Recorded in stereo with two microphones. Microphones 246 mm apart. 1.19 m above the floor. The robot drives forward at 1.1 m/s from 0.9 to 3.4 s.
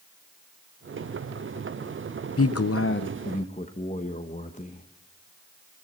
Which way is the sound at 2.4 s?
65° left (ahead or behind).